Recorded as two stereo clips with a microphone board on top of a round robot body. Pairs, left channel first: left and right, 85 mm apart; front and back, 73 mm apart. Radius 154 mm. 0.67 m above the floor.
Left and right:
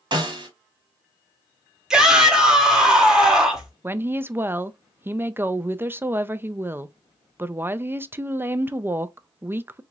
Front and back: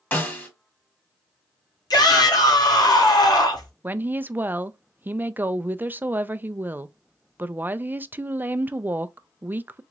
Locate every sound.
0.1 s a snare drum: 65° right, 2.0 m
1.9 s a shout: 10° right, 2 m
3.8 s a woman speaking: 135° right, 0.5 m